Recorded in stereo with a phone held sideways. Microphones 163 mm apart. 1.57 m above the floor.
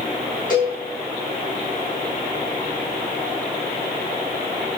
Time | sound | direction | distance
0.5 | a cowbell | 60° left (ahead or behind) | 6 m